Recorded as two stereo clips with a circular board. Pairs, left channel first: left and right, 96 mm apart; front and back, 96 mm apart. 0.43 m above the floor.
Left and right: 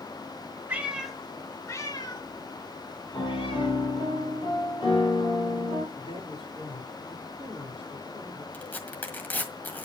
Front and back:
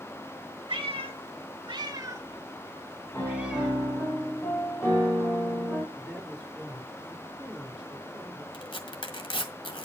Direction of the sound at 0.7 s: 160° right.